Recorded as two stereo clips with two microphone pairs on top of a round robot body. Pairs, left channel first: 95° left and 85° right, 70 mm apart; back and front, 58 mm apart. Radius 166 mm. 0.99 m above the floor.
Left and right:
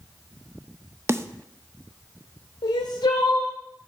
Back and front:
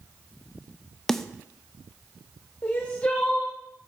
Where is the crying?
120° left, 0.6 m.